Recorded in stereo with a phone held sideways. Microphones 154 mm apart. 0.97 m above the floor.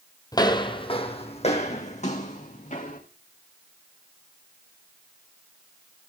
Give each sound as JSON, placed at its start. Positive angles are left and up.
{"t": 0.3, "sound": "footsteps", "side_deg": 25, "distance_m": 1.3}